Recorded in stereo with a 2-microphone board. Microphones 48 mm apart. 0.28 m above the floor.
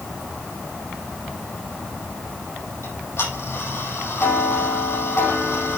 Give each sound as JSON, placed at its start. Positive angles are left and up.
{"t": 2.8, "sound": "ticking", "side_deg": 60, "distance_m": 5.5}